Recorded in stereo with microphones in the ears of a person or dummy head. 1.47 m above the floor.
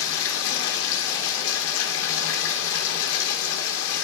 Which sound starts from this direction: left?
Running water, at 0.0 s.